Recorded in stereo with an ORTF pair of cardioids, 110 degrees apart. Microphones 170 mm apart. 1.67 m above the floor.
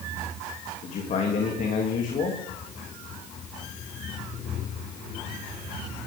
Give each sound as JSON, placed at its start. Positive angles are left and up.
{"t": 0.8, "sound": "a man speaking", "azimuth_deg": 50, "distance_m": 3.5}